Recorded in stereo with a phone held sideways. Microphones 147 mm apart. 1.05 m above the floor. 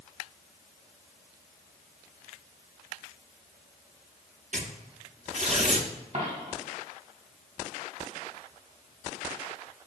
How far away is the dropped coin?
About 2 m.